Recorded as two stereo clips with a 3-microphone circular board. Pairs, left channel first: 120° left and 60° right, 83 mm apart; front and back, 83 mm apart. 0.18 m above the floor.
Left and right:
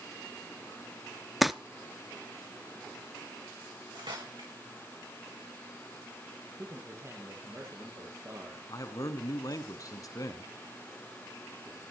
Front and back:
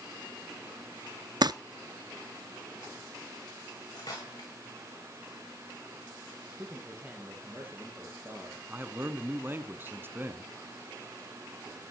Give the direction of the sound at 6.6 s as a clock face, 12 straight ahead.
4 o'clock.